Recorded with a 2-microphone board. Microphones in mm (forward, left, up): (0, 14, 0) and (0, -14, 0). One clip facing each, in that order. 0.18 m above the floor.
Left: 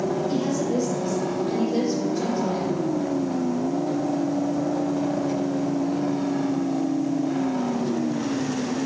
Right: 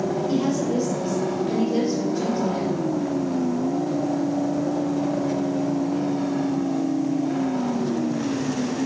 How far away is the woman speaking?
About 4.5 m.